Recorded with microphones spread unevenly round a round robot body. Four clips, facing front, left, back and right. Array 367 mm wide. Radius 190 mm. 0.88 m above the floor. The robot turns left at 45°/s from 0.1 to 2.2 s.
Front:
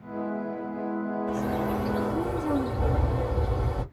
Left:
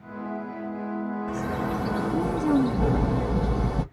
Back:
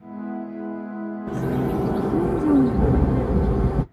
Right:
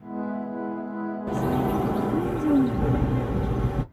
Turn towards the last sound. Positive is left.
turn(degrees=180)